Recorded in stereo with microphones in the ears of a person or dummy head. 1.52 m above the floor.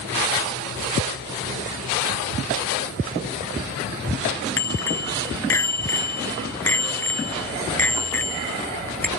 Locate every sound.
4.6 s a bicycle bell: 10° left (ahead or behind); by 9.1 s 5° left (ahead or behind)